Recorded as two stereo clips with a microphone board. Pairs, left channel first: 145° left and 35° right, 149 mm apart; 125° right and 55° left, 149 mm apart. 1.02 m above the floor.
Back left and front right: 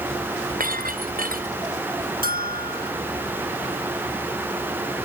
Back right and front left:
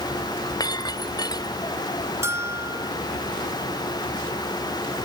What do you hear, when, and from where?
0.6 s breaking glass: 60° right
2.2 s a bell: 15° right